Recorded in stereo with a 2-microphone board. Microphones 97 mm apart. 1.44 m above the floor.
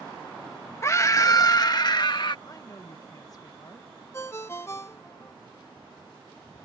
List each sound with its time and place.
0.8 s a scream: 30° left (ahead or behind); by 2.4 s 55° left (ahead or behind)
2.5 s a woman speaking: 40° left (ahead or behind)
4.1 s a ringtone: 30° left (ahead or behind)